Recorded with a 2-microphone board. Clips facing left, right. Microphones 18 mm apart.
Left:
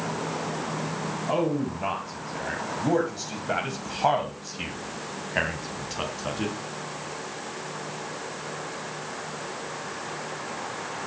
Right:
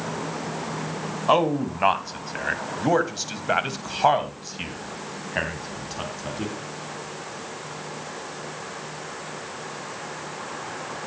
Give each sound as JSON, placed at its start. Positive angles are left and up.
{"t": 1.3, "sound": "a man speaking", "side_deg": -60, "distance_m": 2.5}